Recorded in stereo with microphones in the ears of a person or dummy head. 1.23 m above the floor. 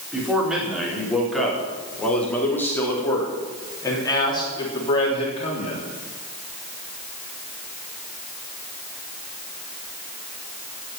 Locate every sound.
0.1 s a man speaking: 5° right (ahead or behind), 4.5 m; by 5.8 s 40° left (ahead or behind), 3.5 m